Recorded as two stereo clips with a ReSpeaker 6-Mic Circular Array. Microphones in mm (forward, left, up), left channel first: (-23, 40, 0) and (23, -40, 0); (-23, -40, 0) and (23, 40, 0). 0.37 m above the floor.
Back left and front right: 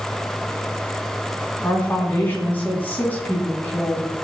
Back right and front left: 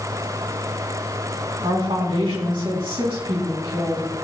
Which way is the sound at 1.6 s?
50° left.